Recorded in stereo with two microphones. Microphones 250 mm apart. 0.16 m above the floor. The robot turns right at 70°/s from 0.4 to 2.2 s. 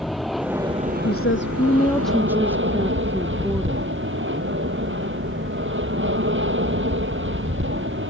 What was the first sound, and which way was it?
An aircraft, straight behind.